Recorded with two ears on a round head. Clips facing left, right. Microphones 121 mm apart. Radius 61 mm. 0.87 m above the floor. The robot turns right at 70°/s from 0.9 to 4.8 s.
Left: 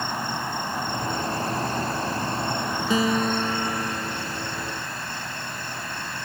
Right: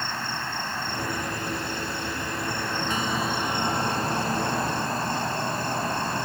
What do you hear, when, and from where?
0.0 s an insect: 25° left; by 6.3 s 60° right
2.9 s a guitar: 110° left; by 5.0 s 115° right